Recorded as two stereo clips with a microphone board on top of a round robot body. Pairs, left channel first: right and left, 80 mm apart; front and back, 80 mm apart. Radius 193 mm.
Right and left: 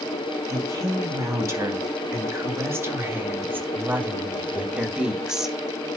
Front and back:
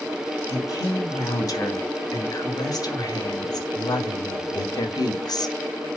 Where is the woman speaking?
40° left, 4 m; by 5.6 s 5° left, 1.7 m.